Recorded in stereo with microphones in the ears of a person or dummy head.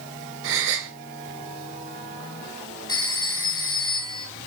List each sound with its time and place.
0.4 s a gasp: 75° right (ahead or behind), 2.5 m
2.9 s a phone ringing: 25° left (ahead or behind), 1.8 m